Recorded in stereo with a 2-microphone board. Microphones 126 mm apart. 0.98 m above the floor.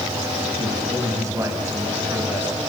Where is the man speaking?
30° right (ahead or behind), 5.5 m; by 2.6 s 15° right (ahead or behind), 6.5 m.